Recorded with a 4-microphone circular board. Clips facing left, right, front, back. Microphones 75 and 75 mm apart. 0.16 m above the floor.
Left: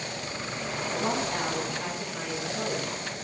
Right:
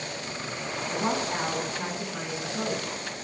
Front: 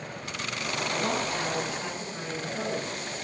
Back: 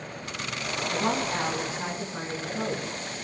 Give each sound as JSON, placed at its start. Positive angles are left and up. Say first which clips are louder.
{"t": 0.9, "sound": "a woman speaking", "louder": "right 1 dB, back 3 dB", "azimuth_deg": -140, "distance_m": 1.8}